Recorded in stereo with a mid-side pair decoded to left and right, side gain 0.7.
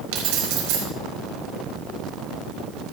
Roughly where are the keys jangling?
Right.